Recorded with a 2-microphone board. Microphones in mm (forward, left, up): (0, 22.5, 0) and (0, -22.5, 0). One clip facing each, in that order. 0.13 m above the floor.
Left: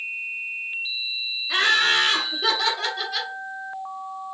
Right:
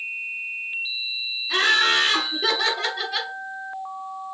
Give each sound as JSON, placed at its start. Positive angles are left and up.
{"t": 1.5, "sound": "laughter", "side_deg": 10, "distance_m": 1.6}